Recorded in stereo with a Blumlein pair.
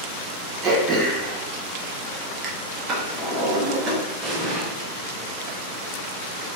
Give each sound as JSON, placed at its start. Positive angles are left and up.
{"t": 0.6, "sound": "throat clearing", "azimuth_deg": -25, "distance_m": 0.7}
{"t": 2.9, "sound": "a drawer", "azimuth_deg": -30, "distance_m": 1.3}
{"t": 4.2, "sound": "an explosion", "azimuth_deg": -5, "distance_m": 1.5}